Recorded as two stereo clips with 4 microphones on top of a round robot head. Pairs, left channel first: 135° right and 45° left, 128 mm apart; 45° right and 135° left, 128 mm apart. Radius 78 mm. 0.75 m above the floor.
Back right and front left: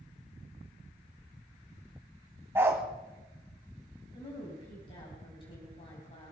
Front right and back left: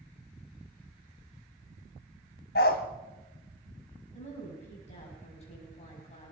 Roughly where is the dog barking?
Ahead right.